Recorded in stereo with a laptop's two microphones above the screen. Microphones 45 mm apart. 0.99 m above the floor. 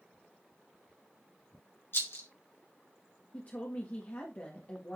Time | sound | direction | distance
1.9 | a rattle | 60° left (ahead or behind) | 1.6 m
3.3 | a woman speaking | 40° left (ahead or behind) | 1.7 m